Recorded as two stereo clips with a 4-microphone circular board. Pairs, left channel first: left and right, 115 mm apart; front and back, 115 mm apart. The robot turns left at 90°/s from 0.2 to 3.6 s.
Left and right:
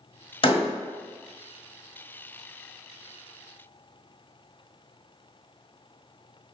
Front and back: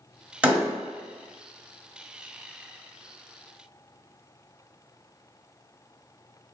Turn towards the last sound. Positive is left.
turn(degrees=175)